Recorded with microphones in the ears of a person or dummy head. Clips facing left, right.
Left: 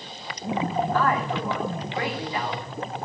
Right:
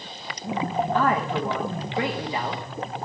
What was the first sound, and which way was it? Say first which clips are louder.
A man speaking: right 3 dB; 20° right (ahead or behind).